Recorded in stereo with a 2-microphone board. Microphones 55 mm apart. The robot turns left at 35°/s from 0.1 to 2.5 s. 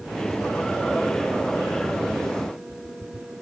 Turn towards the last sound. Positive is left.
No sound to turn to.